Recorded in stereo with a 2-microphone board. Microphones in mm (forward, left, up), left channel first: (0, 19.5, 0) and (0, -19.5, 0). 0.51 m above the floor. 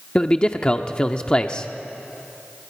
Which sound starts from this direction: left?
A man speaking, at 0.1 s.